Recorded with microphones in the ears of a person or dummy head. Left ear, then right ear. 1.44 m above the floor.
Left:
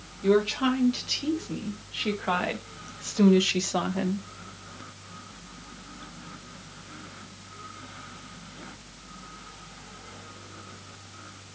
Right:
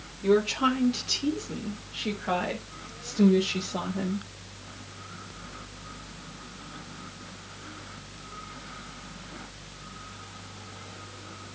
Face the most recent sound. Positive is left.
turn(degrees=70)  # may be behind; listen again after turning